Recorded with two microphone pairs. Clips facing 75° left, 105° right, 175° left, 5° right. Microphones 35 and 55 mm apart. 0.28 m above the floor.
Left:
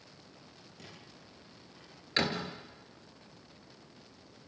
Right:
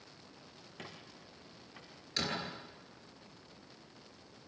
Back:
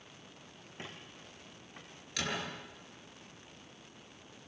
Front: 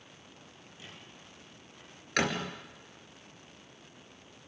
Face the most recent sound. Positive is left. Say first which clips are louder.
# left 5 dB, front 7 dB
turn(degrees=25)